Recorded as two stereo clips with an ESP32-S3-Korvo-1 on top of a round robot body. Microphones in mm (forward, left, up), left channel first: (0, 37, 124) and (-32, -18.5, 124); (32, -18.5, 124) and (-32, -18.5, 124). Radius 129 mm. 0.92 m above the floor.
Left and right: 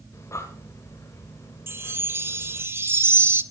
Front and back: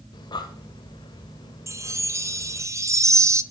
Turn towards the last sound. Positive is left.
turn(degrees=-160)